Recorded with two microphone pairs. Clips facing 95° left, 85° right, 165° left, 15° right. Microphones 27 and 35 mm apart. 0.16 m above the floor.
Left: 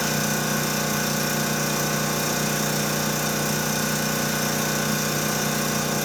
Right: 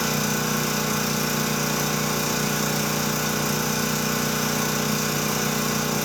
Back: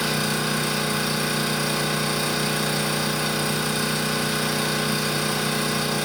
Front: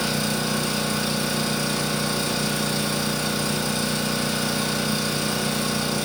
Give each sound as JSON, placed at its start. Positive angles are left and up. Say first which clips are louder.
{"t": 0.0, "sound": "an engine running", "louder": "even, back 1 dB", "azimuth_deg": -145, "distance_m": 1.0}